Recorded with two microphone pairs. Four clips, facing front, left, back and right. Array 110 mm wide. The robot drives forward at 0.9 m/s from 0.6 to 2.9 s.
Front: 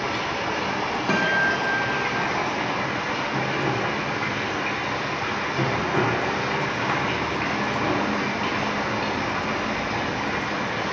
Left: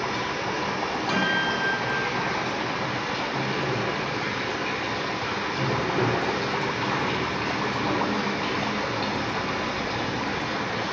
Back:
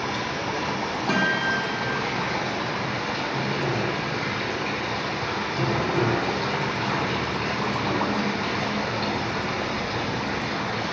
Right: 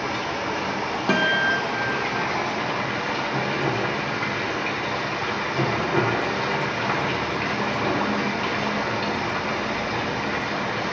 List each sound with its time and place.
0.0 s running water: 50° right, 6 m; by 10.9 s 70° right, 5 m
1.1 s a guitar: 80° right, 2.5 m; by 2.2 s 100° right, 2.5 m